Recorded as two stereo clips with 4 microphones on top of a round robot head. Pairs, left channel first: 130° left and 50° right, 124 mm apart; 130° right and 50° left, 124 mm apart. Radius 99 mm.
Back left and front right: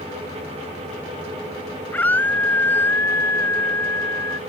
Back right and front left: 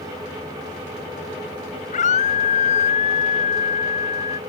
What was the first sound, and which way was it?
A scream, 155° right.